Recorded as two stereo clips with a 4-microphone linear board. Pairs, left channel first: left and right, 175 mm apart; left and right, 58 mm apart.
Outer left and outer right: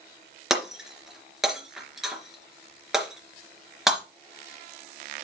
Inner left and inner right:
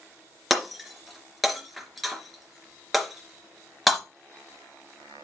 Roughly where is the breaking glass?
Centre.